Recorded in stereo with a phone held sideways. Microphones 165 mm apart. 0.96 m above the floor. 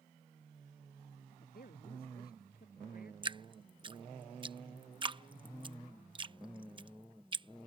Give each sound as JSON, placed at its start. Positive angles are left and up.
{"t": 1.3, "sound": "a woman speaking", "side_deg": 70}
{"t": 3.2, "sound": "dripping", "side_deg": -30}